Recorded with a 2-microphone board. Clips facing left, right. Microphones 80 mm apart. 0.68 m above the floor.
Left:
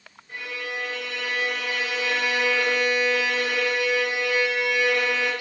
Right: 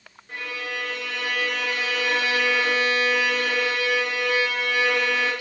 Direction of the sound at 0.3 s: 55° right (ahead or behind).